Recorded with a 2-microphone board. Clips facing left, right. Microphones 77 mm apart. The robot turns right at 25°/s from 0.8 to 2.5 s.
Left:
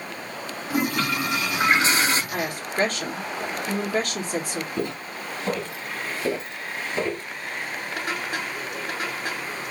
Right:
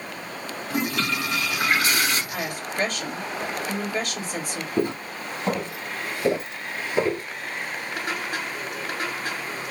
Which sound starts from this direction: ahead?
A toilet flushing, at 0.7 s.